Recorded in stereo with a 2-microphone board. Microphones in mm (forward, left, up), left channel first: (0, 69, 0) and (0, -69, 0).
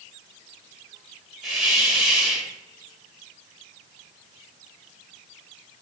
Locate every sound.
1.4 s a hiss: centre (ahead or behind), 0.9 m